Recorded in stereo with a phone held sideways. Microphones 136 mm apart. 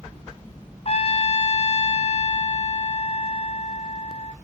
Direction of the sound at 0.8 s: 50° left (ahead or behind).